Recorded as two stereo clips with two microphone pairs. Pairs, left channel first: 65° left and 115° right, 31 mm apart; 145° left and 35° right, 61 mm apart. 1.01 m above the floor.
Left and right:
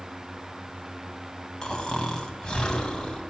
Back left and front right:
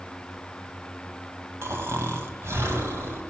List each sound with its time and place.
1.6 s snoring: straight ahead, 1.6 m